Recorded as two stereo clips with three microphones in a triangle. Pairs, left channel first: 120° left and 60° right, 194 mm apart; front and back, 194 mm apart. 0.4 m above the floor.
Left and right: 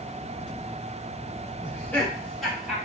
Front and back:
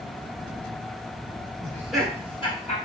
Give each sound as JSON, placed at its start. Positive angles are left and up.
{"t": 1.6, "sound": "laughter", "azimuth_deg": 170, "distance_m": 0.8}